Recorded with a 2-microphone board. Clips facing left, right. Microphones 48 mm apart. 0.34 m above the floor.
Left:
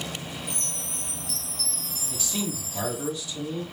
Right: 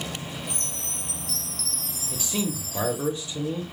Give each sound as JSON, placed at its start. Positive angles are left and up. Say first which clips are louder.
{"t": 0.5, "sound": "a chime", "louder": "right 1 dB", "side_deg": -65, "distance_m": 3.0}
{"t": 2.1, "sound": "a man speaking", "louder": "right 3 dB", "side_deg": -30, "distance_m": 1.0}